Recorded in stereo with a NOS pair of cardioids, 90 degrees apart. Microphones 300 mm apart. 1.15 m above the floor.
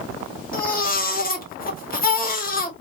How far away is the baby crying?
About 1.9 m.